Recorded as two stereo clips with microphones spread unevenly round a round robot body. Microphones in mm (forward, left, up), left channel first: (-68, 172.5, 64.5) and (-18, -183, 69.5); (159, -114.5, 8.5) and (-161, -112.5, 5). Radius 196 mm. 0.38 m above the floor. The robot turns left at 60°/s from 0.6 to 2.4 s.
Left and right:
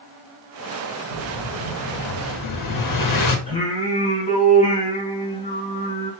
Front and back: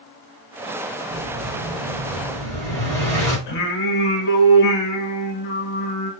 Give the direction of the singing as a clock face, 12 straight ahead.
11 o'clock.